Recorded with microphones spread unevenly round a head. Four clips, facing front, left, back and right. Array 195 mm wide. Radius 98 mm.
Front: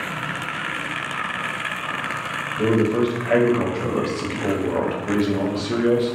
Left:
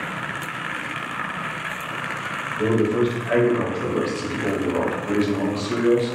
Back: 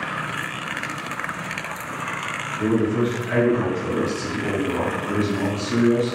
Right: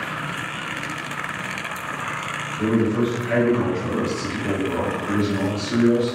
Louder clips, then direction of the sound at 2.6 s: Left 1 dB, front 2 dB; 20° left.